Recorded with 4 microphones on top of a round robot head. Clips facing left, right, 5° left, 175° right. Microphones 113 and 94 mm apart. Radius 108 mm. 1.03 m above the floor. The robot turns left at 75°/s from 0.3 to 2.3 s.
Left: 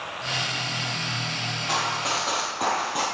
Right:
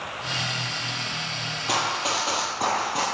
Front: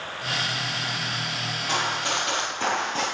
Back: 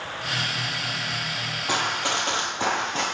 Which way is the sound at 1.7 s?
125° right.